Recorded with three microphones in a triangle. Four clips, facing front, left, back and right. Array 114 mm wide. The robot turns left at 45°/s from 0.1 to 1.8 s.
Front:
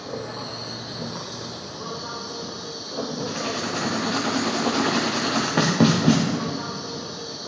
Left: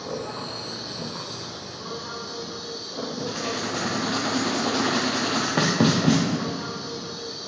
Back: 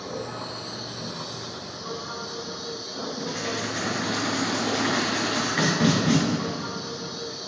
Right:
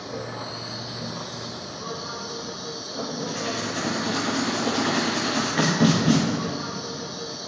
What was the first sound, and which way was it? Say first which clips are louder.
An insect: left 1 dB, front 1 dB; 85° left.